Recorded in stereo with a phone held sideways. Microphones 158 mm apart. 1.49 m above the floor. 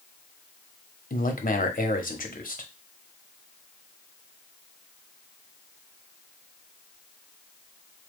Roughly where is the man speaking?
Left.